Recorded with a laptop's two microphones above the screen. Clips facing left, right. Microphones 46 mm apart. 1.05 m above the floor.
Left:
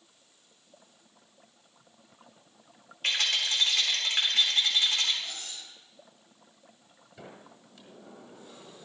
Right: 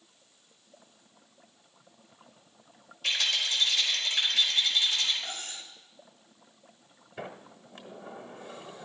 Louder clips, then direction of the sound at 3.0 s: Left 1 dB; 45° left (ahead or behind).